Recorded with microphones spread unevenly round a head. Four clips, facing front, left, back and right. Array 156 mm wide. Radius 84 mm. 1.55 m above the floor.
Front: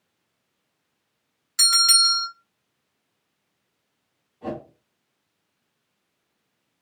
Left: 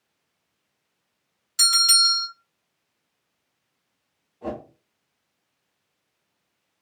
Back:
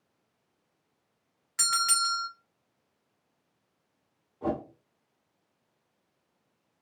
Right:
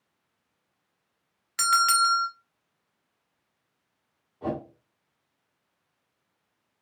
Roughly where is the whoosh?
Behind.